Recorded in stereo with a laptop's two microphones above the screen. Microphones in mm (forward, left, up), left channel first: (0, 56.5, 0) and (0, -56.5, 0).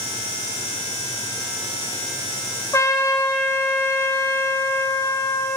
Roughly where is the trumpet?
Left.